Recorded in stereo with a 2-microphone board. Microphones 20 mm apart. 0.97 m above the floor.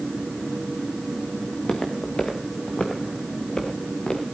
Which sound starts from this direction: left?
Footsteps, at 1.5 s.